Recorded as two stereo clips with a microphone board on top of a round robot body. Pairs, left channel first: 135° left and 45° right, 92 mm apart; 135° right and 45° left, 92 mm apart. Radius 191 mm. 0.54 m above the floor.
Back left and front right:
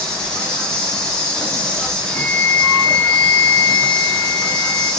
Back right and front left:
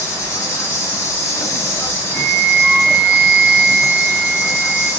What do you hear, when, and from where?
0.0 s an insect: 150° right, 1.1 m
2.1 s a flute: 70° left, 1.6 m